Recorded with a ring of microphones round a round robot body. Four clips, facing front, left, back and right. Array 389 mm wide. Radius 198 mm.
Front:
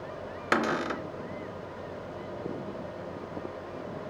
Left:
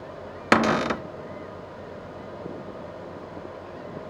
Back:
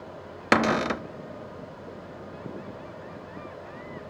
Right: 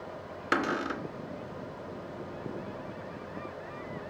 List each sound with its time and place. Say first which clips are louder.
0.5 s a cupboard door: left 9 dB, back 5 dB; 120° left, 0.7 m